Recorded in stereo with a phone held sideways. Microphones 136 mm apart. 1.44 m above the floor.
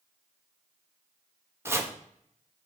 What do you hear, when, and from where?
1.6 s chopping: 20° right (ahead or behind), 0.9 m